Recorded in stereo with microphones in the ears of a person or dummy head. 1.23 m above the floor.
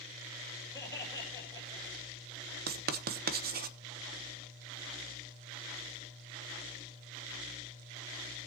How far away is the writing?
About 0.8 m.